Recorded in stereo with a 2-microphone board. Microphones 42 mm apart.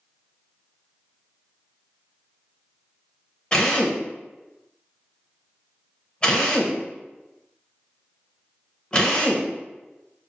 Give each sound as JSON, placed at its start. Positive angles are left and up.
{"t": 3.5, "sound": "a drill", "side_deg": 20, "distance_m": 1.0}